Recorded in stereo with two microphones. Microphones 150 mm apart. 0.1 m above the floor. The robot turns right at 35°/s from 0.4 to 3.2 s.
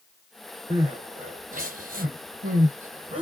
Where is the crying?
40° right (ahead or behind), 1.1 m; by 3.2 s 45° right (ahead or behind), 1.1 m.